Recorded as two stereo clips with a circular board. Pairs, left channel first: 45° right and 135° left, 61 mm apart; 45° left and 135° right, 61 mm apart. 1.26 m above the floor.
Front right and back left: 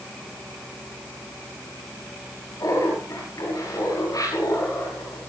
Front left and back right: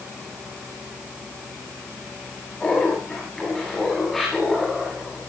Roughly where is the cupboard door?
No cupboard door in this recording.